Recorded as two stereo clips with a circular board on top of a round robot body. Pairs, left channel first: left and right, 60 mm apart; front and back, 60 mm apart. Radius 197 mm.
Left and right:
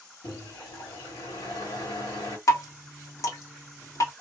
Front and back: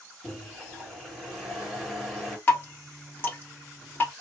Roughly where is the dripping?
Ahead left.